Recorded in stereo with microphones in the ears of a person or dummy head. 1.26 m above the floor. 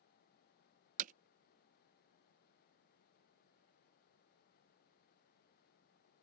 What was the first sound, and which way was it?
Hammering, 45° right (ahead or behind).